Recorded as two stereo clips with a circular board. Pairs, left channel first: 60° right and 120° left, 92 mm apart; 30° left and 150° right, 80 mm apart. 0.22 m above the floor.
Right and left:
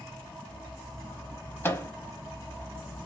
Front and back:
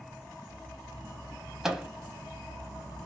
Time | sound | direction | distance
1.6 | a microwave | 75° right | 0.8 m